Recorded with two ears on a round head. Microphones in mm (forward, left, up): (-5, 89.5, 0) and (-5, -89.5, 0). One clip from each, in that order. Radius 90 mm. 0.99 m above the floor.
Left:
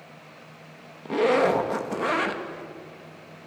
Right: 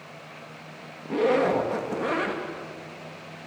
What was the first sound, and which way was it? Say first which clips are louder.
A zipper: left 1 dB; 25° left (ahead or behind).